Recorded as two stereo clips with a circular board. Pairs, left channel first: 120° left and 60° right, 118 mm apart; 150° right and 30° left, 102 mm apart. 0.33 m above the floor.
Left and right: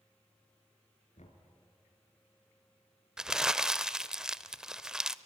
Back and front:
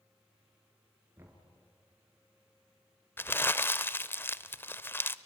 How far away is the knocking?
About 3.5 m.